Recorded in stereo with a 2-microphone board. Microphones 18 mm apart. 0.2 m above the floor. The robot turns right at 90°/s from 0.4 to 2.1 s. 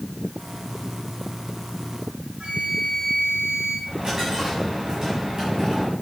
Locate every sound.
2.4 s a flute: 60° right (ahead or behind), 3 m
3.9 s a dropped coin: 40° right (ahead or behind), 7 m